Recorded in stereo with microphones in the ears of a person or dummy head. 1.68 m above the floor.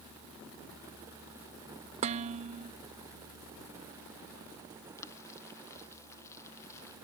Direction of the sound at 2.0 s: 40° right (ahead or behind).